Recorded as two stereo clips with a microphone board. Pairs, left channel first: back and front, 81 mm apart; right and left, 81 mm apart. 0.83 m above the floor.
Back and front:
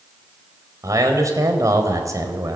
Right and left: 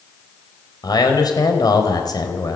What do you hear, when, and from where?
0.8 s a man speaking: 50° right, 4 m